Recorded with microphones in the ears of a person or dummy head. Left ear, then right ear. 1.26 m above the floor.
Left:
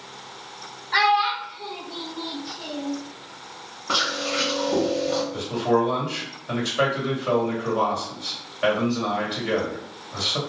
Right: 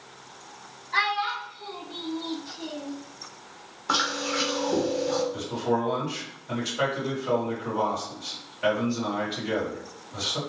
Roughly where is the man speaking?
Left.